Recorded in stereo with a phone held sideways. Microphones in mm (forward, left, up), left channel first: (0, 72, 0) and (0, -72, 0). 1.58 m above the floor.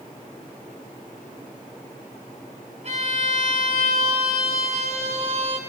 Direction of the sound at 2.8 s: 50° right (ahead or behind).